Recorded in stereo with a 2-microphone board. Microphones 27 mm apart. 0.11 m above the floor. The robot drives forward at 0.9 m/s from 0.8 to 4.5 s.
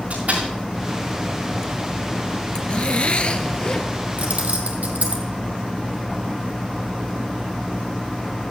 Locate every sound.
0.1 s a door slam: 80° right, 7.5 m
2.5 s a zipper: 40° left (ahead or behind), 0.9 m; by 3.9 s 30° left (ahead or behind), 1.2 m
4.2 s keys jangling: 70° right (ahead or behind), 2 m; by 5.2 s 65° right (ahead or behind), 2.5 m